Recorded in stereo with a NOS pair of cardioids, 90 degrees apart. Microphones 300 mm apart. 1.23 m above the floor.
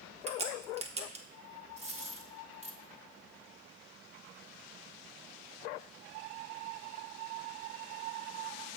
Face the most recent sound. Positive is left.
turn(degrees=-25)